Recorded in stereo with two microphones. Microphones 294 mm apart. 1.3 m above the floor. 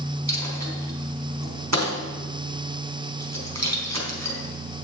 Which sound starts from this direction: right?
A dropped coin, at 0.3 s.